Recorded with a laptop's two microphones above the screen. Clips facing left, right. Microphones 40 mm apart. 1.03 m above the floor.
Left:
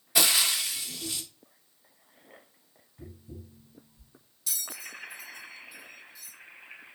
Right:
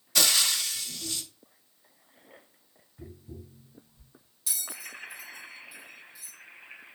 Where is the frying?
20° left (ahead or behind), 0.7 m.